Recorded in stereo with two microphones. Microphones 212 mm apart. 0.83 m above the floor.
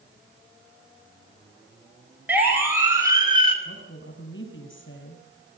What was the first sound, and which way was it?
A siren, 10° right (ahead or behind).